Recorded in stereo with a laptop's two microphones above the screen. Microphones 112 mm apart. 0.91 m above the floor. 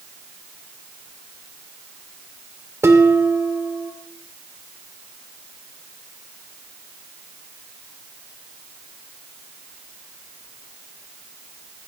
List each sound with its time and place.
2.8 s dishes clattering: 25° right (ahead or behind), 2 m